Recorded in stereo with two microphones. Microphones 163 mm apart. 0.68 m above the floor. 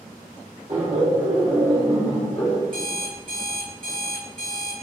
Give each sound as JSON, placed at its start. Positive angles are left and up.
{"t": 0.7, "sound": "laughter", "side_deg": -45, "distance_m": 1.2}
{"t": 2.7, "sound": "an alarm clock", "side_deg": -60, "distance_m": 1.5}